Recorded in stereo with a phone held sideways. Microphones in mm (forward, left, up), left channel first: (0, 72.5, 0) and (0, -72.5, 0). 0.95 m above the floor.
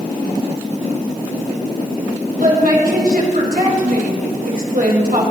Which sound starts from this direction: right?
A woman speaking, at 2.4 s.